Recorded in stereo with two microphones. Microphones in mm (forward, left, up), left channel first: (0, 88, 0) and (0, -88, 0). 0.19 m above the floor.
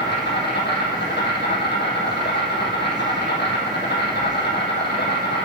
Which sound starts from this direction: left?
An insect, at 0.0 s.